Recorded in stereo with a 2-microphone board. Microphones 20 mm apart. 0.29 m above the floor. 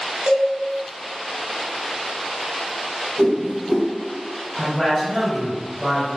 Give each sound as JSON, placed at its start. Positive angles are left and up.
{"t": 0.3, "sound": "a cowbell", "side_deg": -65, "distance_m": 0.7}
{"t": 3.2, "sound": "a whoosh", "side_deg": -55, "distance_m": 0.9}
{"t": 4.6, "sound": "a man speaking", "side_deg": 10, "distance_m": 1.5}